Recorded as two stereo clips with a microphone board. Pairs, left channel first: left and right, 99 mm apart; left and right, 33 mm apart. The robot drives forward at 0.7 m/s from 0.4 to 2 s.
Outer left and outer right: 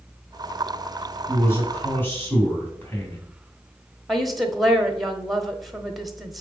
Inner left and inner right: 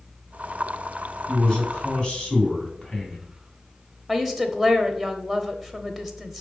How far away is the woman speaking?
About 0.8 m.